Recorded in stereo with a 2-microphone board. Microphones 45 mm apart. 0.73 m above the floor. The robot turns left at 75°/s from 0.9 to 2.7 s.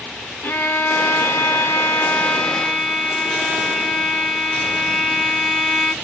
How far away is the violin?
About 0.6 m.